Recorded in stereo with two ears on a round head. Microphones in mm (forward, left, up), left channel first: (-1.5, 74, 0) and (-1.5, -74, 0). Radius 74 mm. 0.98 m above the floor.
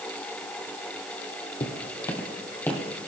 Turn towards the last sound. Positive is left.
turn(degrees=10)  # may be behind; listen again after turning